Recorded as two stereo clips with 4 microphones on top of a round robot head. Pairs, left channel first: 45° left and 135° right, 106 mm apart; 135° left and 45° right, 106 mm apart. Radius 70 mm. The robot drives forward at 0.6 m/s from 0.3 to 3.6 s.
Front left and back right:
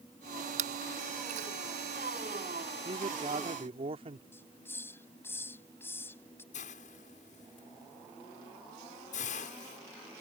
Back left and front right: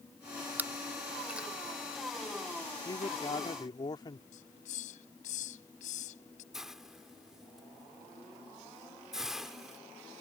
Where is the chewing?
120° right; by 1.5 s 125° right.